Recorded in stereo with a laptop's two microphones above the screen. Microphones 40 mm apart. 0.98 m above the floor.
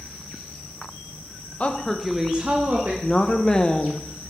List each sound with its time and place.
1.6 s a woman speaking: 35° left (ahead or behind), 0.8 m; by 2.9 s 40° right (ahead or behind), 1.3 m
3.0 s a woman speaking: 20° left (ahead or behind), 0.6 m